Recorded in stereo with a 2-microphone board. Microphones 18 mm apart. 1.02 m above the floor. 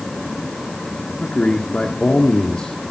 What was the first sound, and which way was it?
A man speaking, 80° left.